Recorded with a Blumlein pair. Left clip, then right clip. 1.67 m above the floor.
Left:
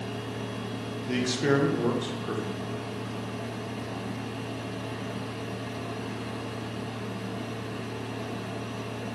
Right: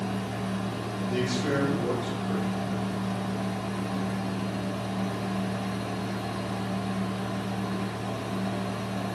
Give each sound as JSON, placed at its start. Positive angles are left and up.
{"t": 0.0, "sound": "a fan", "azimuth_deg": -45, "distance_m": 0.9}
{"t": 1.1, "sound": "a man speaking", "azimuth_deg": 40, "distance_m": 0.7}